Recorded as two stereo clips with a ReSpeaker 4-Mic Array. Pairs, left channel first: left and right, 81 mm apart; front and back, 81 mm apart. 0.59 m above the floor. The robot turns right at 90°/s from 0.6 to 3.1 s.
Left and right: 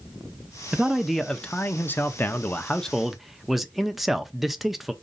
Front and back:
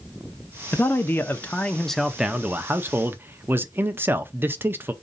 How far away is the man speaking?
About 0.6 m.